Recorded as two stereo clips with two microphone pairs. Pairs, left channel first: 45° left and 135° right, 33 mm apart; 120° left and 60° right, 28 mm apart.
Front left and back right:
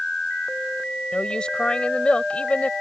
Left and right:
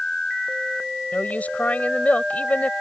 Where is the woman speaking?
105° left; by 2.7 s 95° left.